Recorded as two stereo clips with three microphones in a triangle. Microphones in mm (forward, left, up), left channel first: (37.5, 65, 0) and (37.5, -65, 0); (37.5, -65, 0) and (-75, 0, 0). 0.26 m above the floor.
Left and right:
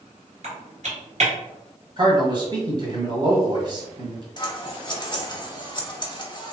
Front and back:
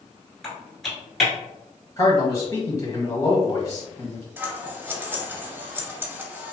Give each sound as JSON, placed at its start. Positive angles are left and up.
{"t": 0.4, "sound": "typing on a keyboard", "azimuth_deg": -120, "distance_m": 1.5}
{"t": 2.0, "sound": "a man speaking", "azimuth_deg": -70, "distance_m": 1.3}
{"t": 4.4, "sound": "scissors", "azimuth_deg": 90, "distance_m": 0.6}